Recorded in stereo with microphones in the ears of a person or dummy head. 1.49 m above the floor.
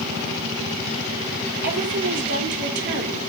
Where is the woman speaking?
50° right (ahead or behind), 3.5 m.